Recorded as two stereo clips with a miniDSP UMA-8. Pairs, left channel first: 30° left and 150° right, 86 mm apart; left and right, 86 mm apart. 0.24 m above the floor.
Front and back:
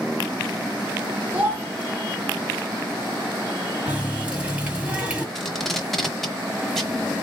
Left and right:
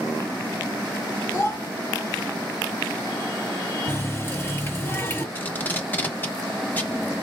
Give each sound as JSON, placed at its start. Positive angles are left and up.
{"t": 1.3, "sound": "a child speaking", "azimuth_deg": 140, "distance_m": 1.5}
{"t": 3.9, "sound": "a running tap", "azimuth_deg": 140, "distance_m": 1.2}
{"t": 5.3, "sound": "tape being pulled", "azimuth_deg": 110, "distance_m": 1.0}